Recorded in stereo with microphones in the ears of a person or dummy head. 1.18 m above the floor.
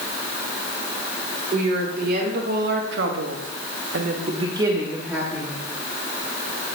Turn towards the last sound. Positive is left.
turn(degrees=0)  # may be behind; listen again after turning